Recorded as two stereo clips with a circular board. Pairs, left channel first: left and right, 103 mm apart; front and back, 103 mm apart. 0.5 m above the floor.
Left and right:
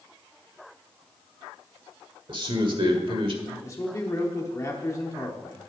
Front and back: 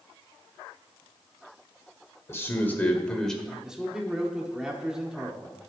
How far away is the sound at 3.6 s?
About 1.0 m.